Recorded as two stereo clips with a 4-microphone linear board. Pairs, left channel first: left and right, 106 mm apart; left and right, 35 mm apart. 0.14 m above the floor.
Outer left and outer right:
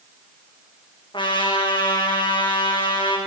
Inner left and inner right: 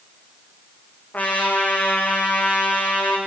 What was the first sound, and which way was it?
A trumpet, 50° left (ahead or behind).